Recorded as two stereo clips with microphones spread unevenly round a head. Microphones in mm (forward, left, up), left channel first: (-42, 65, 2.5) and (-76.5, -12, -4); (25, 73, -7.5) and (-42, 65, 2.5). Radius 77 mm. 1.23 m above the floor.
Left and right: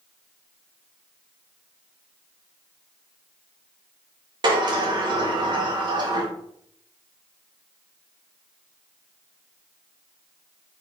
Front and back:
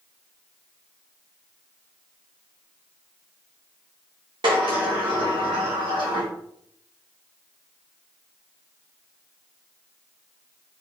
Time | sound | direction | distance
4.4 | a sliding door | 145° right | 1.5 m